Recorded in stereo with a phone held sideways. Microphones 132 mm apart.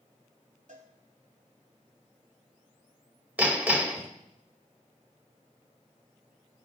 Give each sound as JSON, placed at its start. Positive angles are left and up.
{"t": 0.7, "sound": "a cowbell", "side_deg": -80, "distance_m": 2.5}
{"t": 3.4, "sound": "hammering", "side_deg": -15, "distance_m": 1.3}